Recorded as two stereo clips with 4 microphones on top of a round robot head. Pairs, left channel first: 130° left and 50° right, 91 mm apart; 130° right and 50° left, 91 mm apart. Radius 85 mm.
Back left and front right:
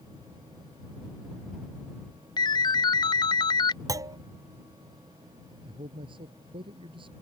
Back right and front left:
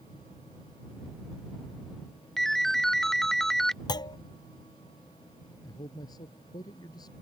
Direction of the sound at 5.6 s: 80° right.